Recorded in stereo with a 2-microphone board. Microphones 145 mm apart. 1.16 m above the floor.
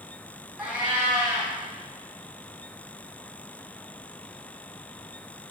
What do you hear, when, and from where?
0.6 s a cat meowing: 5° right (ahead or behind), 0.9 m